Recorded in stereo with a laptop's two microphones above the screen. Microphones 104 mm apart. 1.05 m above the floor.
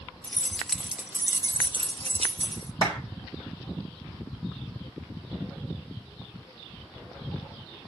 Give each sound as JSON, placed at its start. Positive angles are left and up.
{"t": 0.2, "sound": "keys jangling", "side_deg": 15, "distance_m": 0.9}
{"t": 2.8, "sound": "a clap", "side_deg": -55, "distance_m": 3.5}